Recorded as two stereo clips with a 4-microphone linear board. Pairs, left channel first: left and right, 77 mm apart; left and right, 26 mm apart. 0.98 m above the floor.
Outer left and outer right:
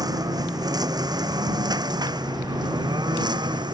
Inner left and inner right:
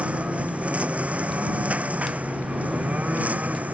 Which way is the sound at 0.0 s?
60° right (ahead or behind).